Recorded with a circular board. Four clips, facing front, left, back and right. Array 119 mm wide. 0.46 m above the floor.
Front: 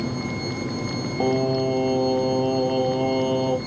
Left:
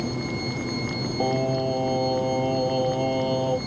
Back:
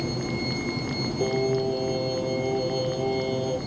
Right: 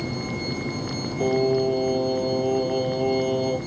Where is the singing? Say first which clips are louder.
Right 4 dB, front 3 dB; 30° left, 0.7 m.